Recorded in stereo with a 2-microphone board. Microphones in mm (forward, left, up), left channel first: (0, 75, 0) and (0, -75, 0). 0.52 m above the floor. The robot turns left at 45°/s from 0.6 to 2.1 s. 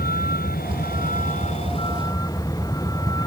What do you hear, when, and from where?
0.0 s a vehicle: 90° left; by 3.3 s 25° left